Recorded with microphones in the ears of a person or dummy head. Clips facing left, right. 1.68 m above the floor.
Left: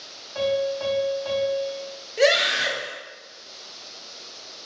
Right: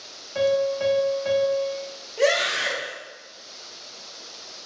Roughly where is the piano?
Right.